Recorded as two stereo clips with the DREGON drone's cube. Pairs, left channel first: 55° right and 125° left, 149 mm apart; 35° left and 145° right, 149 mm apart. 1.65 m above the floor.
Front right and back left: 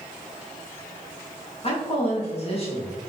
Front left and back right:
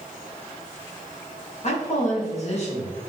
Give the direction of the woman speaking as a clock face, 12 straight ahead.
12 o'clock.